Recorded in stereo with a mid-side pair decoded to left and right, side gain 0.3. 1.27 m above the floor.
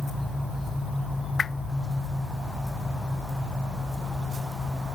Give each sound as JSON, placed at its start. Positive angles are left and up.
{"t": 1.4, "sound": "a whoosh", "azimuth_deg": 55}